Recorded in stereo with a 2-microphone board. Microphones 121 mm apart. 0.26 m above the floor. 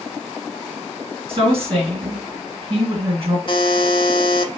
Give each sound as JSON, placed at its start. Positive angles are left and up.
{"t": 1.3, "sound": "a woman speaking", "side_deg": -50, "distance_m": 2.5}
{"t": 3.5, "sound": "a buzzer", "side_deg": 45, "distance_m": 0.6}